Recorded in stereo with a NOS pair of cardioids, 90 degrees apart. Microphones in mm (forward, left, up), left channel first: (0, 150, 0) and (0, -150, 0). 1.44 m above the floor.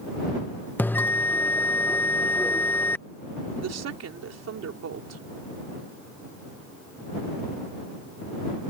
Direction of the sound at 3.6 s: 55° right.